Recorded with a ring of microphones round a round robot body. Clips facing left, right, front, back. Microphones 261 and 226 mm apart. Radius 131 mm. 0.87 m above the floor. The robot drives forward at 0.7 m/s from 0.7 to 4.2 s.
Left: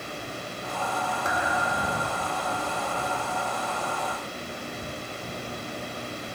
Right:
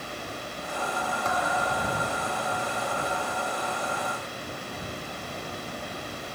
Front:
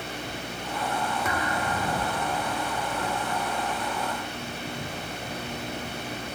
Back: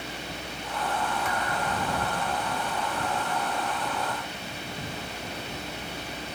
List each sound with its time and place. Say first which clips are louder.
1.2 s a thud: right 2 dB, front 2 dB; 15° left